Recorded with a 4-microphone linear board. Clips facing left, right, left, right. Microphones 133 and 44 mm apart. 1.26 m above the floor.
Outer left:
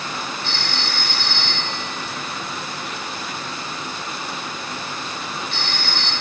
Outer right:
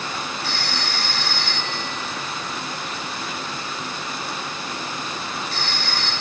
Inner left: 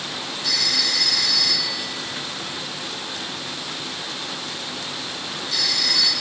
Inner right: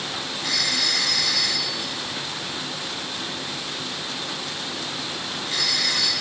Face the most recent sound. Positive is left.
turn(degrees=-40)  # may be behind; listen again after turning